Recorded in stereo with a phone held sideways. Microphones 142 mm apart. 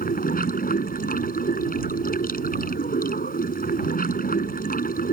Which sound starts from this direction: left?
Running water, at 0.0 s.